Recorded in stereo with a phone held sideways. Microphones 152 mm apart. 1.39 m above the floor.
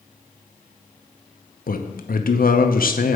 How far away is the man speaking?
About 0.7 m.